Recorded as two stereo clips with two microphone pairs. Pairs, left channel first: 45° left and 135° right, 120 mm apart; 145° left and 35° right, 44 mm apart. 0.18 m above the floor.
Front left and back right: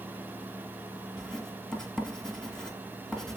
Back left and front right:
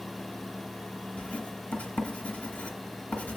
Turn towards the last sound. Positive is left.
turn(degrees=130)